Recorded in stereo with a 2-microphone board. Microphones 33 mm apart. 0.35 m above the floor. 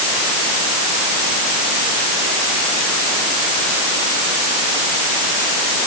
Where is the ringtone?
I don't hear a ringtone.